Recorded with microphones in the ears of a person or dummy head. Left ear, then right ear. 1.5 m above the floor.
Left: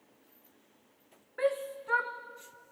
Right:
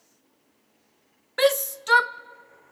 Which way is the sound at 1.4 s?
85° right.